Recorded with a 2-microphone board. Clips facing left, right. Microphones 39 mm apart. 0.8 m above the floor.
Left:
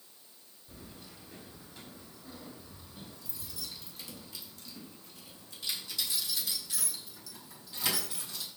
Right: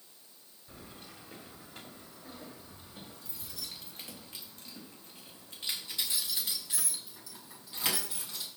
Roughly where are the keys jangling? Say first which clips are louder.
Right 1 dB; right.